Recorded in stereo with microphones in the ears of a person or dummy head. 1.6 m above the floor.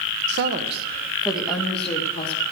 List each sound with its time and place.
0.3 s a woman speaking: 65° right (ahead or behind), 1.1 m; by 2.4 s 15° left (ahead or behind), 3.5 m